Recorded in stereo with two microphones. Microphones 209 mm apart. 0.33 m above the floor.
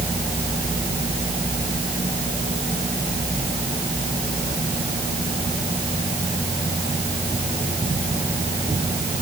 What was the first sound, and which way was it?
Only background noise.